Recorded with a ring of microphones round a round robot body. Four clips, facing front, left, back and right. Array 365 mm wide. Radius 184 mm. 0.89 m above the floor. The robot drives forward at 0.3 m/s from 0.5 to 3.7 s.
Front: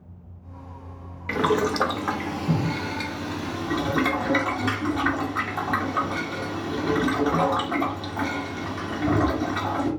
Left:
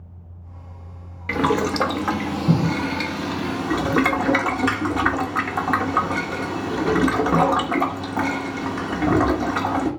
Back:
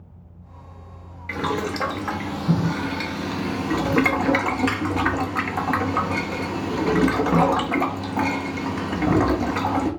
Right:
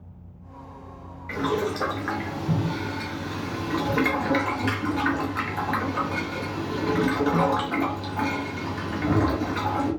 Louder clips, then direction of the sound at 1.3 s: Left 5 dB, front 3 dB; 65° left.